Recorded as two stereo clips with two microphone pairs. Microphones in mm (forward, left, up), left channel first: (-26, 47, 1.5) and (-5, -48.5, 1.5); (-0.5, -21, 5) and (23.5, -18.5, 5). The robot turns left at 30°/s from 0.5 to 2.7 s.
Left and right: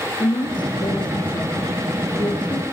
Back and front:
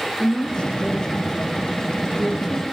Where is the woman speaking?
125° left, 4.5 m; by 2.6 s 60° left, 4.5 m.